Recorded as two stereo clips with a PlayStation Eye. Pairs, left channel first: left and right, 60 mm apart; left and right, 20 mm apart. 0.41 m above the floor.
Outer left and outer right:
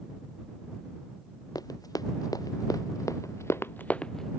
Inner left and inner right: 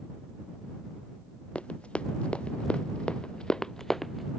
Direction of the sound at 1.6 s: 85° left.